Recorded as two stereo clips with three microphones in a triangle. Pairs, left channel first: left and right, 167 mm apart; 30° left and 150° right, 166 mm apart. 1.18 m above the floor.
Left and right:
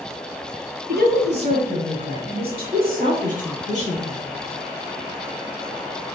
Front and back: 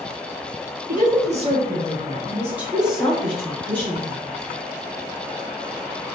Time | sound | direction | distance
0.9 | a woman speaking | 110° right | 2 m